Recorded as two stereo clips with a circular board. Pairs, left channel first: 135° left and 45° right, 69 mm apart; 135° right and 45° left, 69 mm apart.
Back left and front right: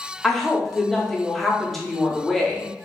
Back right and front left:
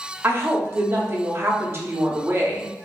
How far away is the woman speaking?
About 0.7 m.